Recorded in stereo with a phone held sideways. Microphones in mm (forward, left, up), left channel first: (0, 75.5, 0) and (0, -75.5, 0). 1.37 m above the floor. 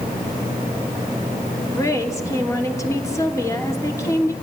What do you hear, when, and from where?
1.7 s a woman speaking: 20° left (ahead or behind), 3 m